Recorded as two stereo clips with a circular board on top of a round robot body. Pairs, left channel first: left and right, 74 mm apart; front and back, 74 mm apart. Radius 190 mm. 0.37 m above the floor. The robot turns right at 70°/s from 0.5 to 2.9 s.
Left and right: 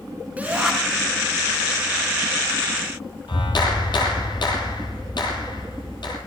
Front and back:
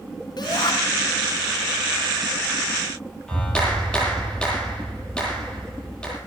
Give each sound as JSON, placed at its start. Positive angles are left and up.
{"t": 0.4, "sound": "a shout", "azimuth_deg": -20, "distance_m": 4.0}
{"t": 3.3, "sound": "a clap", "azimuth_deg": 75, "distance_m": 10.0}